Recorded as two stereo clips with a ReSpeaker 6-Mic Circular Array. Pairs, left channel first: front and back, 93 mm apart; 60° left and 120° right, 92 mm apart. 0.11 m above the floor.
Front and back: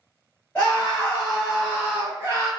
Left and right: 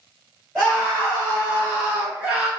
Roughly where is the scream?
Ahead right.